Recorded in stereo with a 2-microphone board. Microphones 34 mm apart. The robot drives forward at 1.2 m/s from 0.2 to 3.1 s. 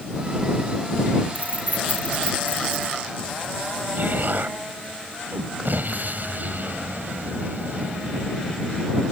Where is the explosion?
60° right (ahead or behind).